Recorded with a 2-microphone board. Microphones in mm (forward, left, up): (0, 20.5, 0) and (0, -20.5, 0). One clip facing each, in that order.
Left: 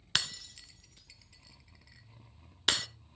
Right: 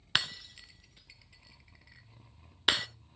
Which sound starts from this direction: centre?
Breaking glass, at 0.1 s.